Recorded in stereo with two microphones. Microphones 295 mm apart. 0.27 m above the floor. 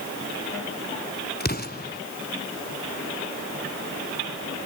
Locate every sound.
1.4 s an explosion: 30° left (ahead or behind), 1.3 m